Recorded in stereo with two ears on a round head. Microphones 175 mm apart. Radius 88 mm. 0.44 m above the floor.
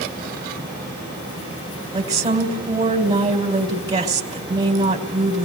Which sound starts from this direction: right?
A woman speaking, at 1.9 s.